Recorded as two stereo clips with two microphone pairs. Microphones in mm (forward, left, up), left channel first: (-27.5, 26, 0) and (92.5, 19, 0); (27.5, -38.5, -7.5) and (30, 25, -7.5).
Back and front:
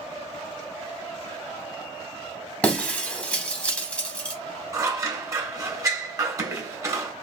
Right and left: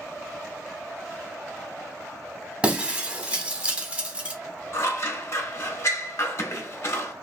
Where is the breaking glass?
110° left, 0.7 m.